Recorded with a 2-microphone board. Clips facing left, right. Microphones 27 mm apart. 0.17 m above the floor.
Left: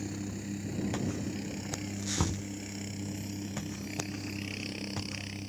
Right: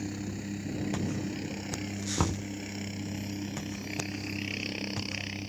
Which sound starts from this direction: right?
Knocking, at 2.2 s.